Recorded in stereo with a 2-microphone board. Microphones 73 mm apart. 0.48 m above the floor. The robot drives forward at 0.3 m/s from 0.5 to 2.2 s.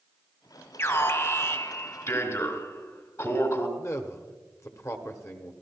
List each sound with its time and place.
0.8 s an alarm: 45° left (ahead or behind), 3 m; by 3.7 s 50° left (ahead or behind), 3 m
3.8 s a man speaking: 40° left (ahead or behind), 1.3 m